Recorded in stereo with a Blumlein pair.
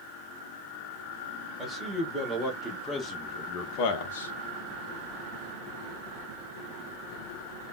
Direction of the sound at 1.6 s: Straight ahead.